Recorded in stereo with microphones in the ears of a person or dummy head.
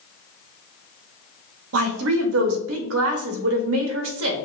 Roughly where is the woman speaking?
Right.